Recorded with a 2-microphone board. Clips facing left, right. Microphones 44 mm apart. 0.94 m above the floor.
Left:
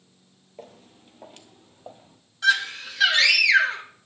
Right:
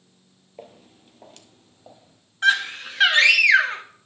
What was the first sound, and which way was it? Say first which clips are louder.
Footsteps: right 1 dB; 10° right (ahead or behind).